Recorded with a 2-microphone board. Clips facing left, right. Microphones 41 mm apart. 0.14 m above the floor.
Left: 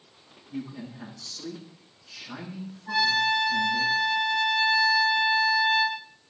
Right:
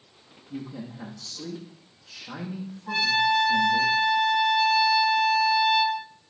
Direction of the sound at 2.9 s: 35° right (ahead or behind).